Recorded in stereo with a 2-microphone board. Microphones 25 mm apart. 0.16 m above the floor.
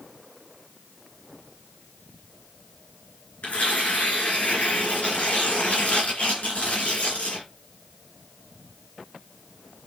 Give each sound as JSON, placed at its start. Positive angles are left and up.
{"t": 3.4, "sound": "tearing paper", "side_deg": 75, "distance_m": 2.5}